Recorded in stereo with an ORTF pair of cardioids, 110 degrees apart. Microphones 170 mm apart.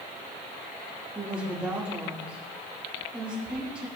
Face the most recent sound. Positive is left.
turn(degrees=-5)